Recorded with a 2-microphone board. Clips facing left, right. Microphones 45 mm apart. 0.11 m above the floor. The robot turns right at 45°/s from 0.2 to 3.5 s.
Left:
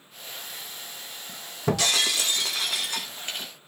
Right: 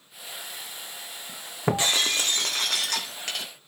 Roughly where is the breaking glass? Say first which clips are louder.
Even; behind.